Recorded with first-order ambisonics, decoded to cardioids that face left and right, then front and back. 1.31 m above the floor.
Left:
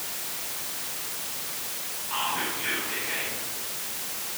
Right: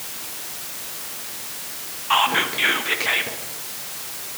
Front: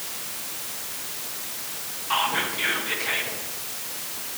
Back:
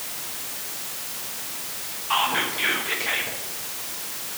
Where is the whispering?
95° right, 0.7 m.